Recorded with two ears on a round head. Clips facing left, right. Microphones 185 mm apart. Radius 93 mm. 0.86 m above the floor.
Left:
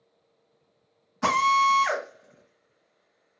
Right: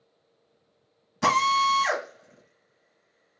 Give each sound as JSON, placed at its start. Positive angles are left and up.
{"t": 1.2, "sound": "a drill", "side_deg": -45, "distance_m": 2.5}